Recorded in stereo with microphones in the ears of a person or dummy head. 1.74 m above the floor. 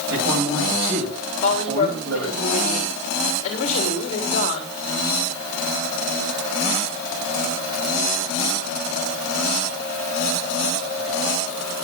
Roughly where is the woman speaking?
Left.